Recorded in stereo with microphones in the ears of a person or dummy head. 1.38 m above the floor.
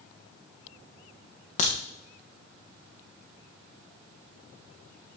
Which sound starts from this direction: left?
A crack, at 1.6 s.